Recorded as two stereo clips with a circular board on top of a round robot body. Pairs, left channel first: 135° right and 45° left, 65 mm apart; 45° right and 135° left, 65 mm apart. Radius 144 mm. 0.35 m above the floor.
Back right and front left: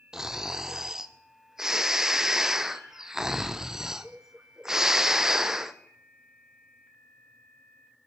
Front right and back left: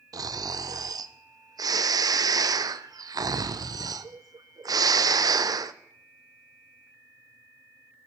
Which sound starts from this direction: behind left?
Snoring, at 0.1 s.